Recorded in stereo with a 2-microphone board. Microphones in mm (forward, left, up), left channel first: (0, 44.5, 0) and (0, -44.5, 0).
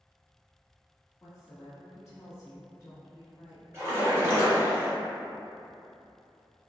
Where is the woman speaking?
35° left (ahead or behind), 1.2 m.